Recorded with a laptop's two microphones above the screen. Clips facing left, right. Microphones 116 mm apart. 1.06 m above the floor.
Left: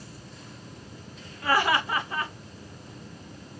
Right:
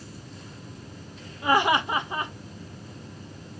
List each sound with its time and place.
1.4 s laughter: 20° right (ahead or behind), 0.8 m